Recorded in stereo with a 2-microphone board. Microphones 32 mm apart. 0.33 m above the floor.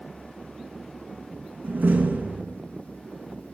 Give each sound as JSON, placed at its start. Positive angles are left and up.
{"t": 1.6, "sound": "a door slam", "side_deg": -75, "distance_m": 3.5}